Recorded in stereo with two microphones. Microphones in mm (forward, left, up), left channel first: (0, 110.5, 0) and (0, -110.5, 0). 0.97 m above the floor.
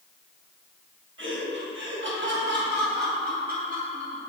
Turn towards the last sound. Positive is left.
turn(degrees=-35)  # may be behind; listen again after turning